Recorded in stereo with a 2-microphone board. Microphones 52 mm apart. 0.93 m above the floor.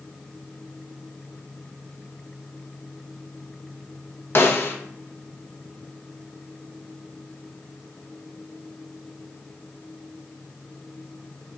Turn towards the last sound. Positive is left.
turn(degrees=45)  # may be behind; listen again after turning